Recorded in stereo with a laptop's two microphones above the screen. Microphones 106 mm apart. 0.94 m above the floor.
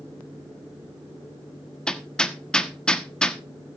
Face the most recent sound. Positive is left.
turn(degrees=10)  # may be behind; listen again after turning